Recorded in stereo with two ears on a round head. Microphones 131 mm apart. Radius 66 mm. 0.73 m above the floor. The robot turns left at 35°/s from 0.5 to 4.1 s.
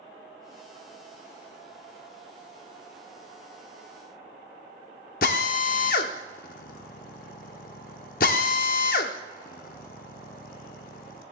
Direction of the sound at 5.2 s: 65° left (ahead or behind).